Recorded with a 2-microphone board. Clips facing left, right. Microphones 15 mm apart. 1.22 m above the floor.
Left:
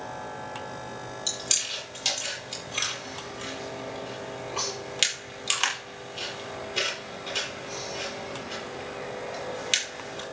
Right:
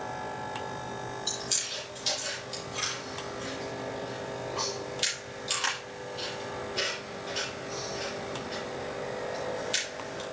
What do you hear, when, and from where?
1.3 s chewing: 80° left, 8 m